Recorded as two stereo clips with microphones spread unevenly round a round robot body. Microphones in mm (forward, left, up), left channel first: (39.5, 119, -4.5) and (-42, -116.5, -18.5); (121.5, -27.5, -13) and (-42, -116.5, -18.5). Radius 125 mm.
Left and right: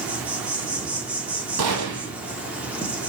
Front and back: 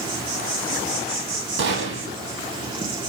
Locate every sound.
0.0 s an insect: 175° left, 1.2 m
1.6 s a gunshot: 140° right, 3 m